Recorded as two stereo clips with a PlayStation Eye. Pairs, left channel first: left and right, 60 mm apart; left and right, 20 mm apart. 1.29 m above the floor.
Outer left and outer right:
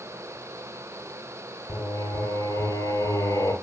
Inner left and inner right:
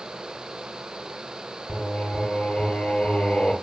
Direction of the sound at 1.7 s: 75° left (ahead or behind).